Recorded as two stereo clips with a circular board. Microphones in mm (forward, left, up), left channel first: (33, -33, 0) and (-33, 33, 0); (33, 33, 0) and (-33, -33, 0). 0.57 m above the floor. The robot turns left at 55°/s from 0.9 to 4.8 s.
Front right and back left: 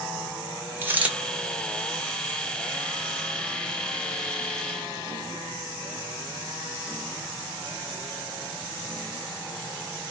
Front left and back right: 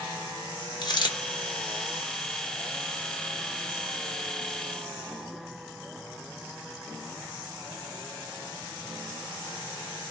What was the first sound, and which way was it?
A dropped coin, 70° left.